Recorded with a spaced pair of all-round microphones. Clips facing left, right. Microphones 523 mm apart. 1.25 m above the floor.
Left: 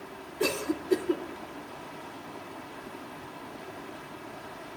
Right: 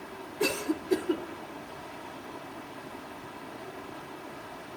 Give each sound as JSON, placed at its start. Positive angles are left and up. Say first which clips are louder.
{"t": 0.4, "sound": "a cough", "louder": "even", "side_deg": -5, "distance_m": 0.6}